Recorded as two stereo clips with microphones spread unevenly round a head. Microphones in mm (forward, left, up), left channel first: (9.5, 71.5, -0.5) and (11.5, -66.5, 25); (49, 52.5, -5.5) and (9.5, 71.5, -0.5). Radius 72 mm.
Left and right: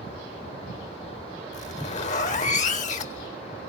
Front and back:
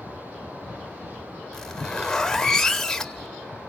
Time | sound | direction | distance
1.5 | a zipper | 55° left | 1.9 m